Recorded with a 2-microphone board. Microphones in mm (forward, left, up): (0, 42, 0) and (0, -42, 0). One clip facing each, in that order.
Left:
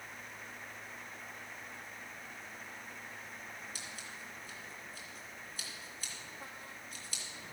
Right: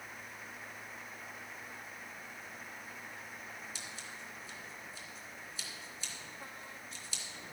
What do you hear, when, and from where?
3.8 s scissors: 50° left (ahead or behind), 3 m